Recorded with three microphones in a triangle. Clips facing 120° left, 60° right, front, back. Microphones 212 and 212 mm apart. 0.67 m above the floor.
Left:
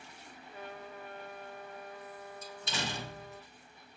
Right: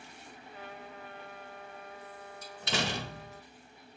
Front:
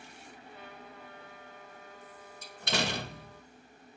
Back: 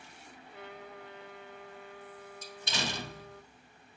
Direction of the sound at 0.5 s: 170° left.